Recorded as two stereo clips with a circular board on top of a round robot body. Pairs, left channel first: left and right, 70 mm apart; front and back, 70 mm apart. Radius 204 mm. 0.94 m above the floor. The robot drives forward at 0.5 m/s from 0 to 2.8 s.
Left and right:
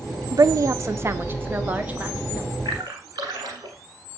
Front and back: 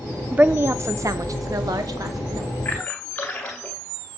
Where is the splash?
70° right, 1.2 m; by 3.8 s 75° right, 1.2 m.